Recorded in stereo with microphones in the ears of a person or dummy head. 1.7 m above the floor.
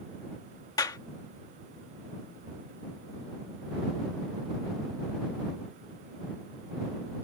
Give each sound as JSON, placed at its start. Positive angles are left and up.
{"t": 0.8, "sound": "a clap", "side_deg": 15}